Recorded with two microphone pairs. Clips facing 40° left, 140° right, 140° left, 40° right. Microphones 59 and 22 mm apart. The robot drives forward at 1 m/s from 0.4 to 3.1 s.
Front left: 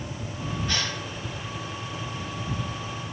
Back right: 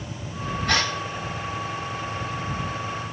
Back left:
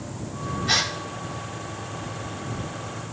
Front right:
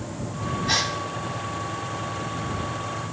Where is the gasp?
155° right, 1.8 m; by 0.9 s 160° right, 2 m.